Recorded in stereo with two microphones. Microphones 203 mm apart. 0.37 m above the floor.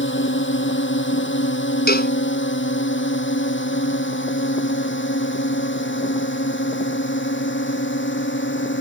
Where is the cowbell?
50° left (ahead or behind).